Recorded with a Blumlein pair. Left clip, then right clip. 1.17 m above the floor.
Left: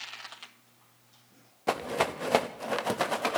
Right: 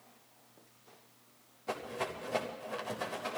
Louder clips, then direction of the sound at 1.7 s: Left 9 dB; 35° left.